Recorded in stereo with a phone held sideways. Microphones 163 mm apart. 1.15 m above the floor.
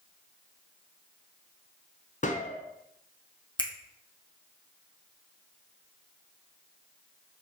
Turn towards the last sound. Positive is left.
turn(degrees=25)  # may be behind; listen again after turning